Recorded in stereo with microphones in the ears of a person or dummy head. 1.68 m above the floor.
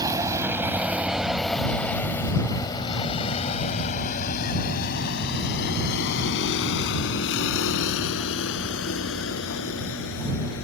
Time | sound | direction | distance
0.0 | a vehicle | 20° right (ahead or behind) | ?